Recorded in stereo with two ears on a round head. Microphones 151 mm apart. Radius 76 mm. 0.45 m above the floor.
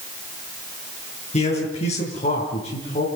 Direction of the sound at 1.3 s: 40° left (ahead or behind).